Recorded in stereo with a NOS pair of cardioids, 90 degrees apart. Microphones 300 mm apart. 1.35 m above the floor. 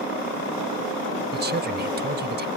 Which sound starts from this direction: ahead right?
A woman speaking, at 1.3 s.